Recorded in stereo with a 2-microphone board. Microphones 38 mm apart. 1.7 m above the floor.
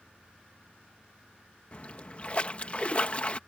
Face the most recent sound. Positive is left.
turn(degrees=35)  # may be behind; listen again after turning